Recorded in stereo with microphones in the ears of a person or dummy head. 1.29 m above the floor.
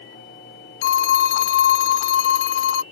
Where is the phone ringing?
70° left (ahead or behind).